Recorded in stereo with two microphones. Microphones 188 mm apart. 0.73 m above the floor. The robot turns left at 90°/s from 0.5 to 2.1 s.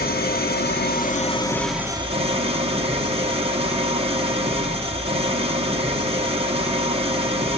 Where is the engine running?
105° left, 1.3 m; by 7.6 s 35° right, 1.3 m.